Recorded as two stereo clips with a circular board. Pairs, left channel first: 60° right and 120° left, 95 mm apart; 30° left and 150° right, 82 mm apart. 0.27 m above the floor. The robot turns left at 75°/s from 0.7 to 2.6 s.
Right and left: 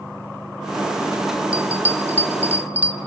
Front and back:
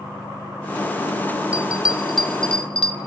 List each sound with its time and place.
1.5 s a bell: 170° left, 1.5 m; by 3.0 s 90° left, 1.5 m